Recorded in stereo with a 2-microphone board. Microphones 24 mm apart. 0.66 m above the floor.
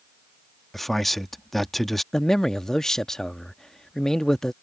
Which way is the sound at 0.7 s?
5° left (ahead or behind).